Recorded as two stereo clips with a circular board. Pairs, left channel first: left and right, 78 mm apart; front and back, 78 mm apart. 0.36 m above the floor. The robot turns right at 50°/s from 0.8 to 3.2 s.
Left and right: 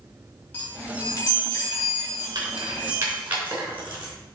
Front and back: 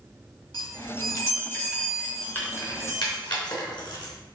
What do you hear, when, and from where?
0.5 s a chime: 25° left, 3.5 m; by 3.2 s 140° left, 3.5 m
2.4 s keys jangling: 65° right, 3.5 m; by 4.1 s 25° right, 3.5 m